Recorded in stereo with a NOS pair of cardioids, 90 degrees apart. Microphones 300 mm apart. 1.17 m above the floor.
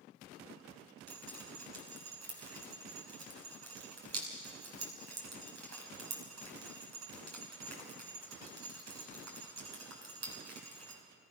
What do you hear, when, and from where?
1.1 s dripping: 60° right, 5 m